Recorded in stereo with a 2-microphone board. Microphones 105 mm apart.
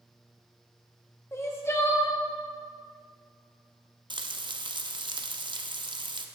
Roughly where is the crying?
Left.